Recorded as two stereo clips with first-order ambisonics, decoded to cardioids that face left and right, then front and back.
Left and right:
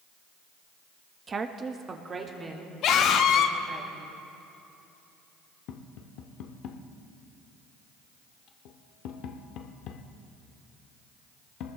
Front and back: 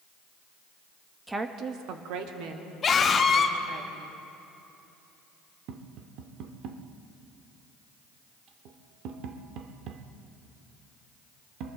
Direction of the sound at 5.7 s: 135° left.